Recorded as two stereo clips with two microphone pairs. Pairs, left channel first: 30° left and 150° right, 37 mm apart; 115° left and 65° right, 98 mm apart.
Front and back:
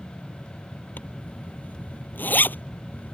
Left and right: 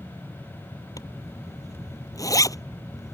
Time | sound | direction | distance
1.0 | a zipper | 60° left | ?